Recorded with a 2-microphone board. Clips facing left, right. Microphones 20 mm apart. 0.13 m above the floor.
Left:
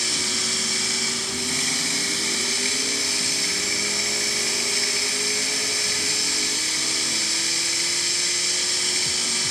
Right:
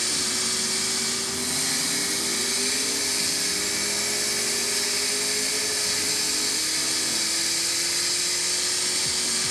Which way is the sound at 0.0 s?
40° left (ahead or behind).